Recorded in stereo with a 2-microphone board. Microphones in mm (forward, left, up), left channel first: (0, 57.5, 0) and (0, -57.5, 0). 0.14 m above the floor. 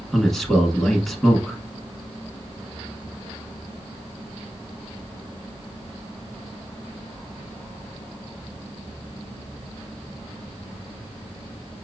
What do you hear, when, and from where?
0.1 s a man speaking: centre (ahead or behind), 1.1 m